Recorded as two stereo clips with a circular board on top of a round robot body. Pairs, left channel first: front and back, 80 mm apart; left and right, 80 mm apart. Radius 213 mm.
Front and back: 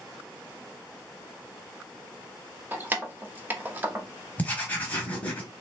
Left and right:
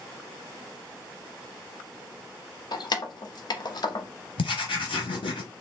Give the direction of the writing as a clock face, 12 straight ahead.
10 o'clock.